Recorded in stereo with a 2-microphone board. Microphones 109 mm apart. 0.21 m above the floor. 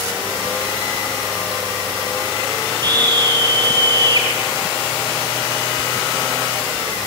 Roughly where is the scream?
Right.